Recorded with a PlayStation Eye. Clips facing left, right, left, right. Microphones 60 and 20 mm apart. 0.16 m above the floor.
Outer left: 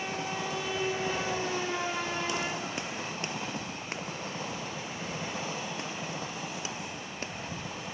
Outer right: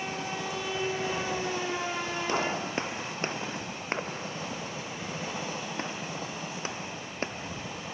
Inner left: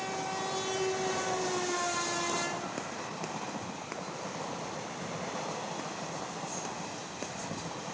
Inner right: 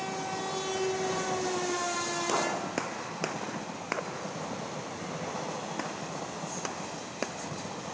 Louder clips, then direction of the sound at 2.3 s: Outer right 4 dB, inner right 4 dB; 35° right (ahead or behind).